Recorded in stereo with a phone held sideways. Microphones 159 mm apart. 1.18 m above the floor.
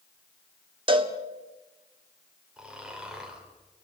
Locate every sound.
0.9 s a cowbell: 30° right (ahead or behind), 1.8 m
2.6 s snoring: 5° right (ahead or behind), 4.5 m